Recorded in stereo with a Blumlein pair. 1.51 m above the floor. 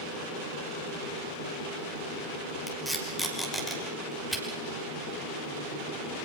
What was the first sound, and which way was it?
Tape being pulled, straight ahead.